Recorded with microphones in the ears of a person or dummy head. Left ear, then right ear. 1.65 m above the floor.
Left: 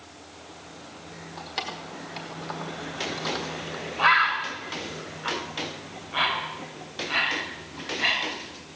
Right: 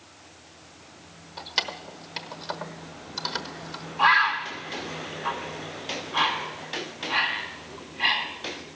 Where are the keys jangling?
20° right (ahead or behind), 1.2 m.